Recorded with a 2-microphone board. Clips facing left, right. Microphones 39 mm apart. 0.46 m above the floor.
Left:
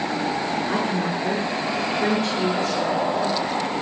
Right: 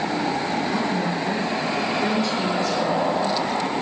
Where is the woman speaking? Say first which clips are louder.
Even; 40° left (ahead or behind), 6.5 m.